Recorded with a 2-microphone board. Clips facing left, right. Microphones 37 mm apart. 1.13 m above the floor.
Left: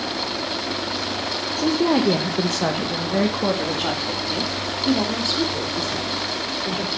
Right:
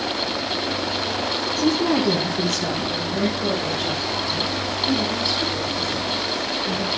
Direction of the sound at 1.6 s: 5° left (ahead or behind).